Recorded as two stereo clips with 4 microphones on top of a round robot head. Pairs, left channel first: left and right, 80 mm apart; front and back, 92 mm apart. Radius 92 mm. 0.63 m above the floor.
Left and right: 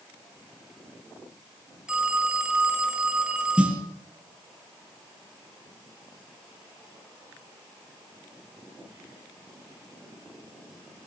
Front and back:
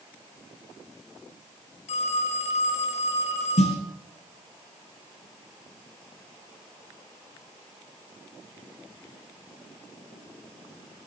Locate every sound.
1.9 s a phone ringing: 10° right, 3 m
3.6 s a snare drum: 10° right, 4 m